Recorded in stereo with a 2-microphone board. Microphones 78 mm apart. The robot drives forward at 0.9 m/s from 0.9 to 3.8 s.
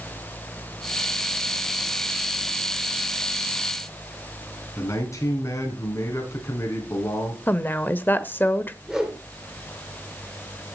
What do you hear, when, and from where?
4.8 s a man speaking: 40° left (ahead or behind), 3.5 m
7.5 s a woman speaking: 25° left (ahead or behind), 0.9 m
8.8 s a whoosh: 5° right (ahead or behind), 2.5 m